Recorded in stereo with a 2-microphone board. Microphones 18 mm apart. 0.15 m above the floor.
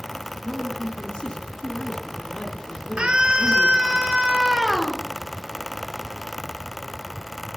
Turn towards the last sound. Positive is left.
turn(degrees=-65)  # may be behind; listen again after turning